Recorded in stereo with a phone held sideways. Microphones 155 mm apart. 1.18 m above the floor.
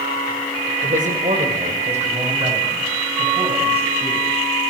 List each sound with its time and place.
0.8 s a man speaking: 60° right (ahead or behind), 4 m; by 4.3 s 35° right (ahead or behind), 8.5 m